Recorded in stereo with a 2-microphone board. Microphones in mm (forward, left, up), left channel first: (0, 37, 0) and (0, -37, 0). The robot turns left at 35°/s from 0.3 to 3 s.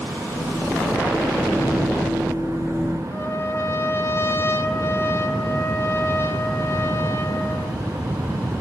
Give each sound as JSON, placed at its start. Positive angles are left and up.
{"t": 3.1, "sound": "a trumpet", "side_deg": 35, "distance_m": 1.7}